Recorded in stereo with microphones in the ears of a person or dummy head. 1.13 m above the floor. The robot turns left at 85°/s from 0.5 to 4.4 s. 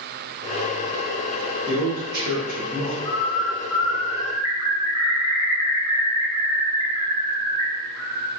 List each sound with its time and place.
1.7 s a man speaking: 40° right, 0.8 m; by 3.0 s 150° right, 0.8 m
3.0 s a bird: 135° left, 1.1 m; by 8.3 s 20° left, 1.1 m